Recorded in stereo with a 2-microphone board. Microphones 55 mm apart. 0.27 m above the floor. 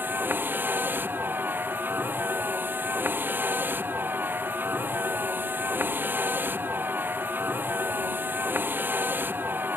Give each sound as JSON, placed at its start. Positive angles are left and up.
{"t": 0.0, "sound": "a vehicle", "side_deg": -40}